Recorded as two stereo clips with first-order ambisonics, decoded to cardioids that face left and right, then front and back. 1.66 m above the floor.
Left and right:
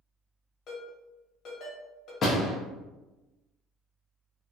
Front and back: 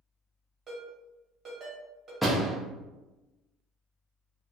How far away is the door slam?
About 0.6 m.